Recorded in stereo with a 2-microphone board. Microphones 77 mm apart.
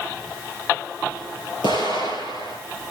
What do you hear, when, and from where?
1.6 s an explosion: 75° left (ahead or behind), 5.5 m